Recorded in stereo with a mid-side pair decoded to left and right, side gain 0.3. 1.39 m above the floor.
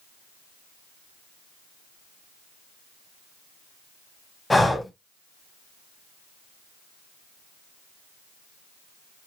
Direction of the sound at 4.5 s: 20° left.